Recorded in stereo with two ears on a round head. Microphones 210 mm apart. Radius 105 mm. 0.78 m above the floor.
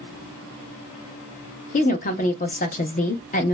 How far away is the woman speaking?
About 0.5 m.